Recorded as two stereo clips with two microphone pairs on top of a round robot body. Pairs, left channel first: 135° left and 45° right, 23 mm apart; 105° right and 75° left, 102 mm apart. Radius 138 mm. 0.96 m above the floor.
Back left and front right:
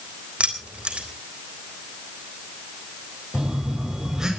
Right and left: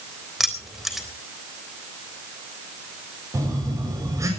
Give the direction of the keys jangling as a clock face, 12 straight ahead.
12 o'clock.